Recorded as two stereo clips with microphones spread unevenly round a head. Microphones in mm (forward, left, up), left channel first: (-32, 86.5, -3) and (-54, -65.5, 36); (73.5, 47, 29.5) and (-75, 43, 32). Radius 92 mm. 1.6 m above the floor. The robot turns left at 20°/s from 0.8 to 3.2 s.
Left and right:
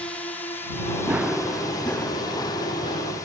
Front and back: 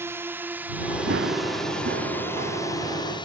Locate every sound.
0.0 s a drone: 125° left; by 3.3 s 40° left
1.1 s running footsteps: 175° right; by 3.3 s 130° left